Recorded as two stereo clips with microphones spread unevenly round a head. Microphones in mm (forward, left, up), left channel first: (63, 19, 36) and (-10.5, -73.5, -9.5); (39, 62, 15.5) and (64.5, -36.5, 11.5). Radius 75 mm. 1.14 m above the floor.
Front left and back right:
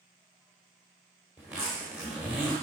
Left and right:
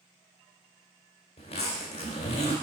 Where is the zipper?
135° left, 1.5 m.